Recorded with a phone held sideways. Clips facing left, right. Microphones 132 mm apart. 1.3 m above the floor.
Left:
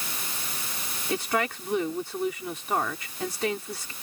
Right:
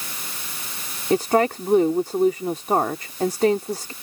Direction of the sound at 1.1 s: 45° right (ahead or behind).